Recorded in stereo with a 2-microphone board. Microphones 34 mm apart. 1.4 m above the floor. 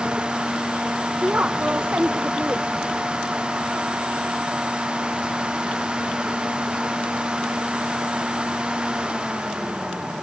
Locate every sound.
1.2 s a woman speaking: 45° right (ahead or behind), 0.6 m